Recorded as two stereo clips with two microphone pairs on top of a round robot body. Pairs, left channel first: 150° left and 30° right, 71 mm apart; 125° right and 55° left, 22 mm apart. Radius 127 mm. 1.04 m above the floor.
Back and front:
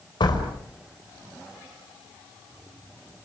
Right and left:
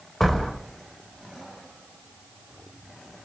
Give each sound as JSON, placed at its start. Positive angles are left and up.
{"t": 0.2, "sound": "a door slam", "azimuth_deg": 160, "distance_m": 5.0}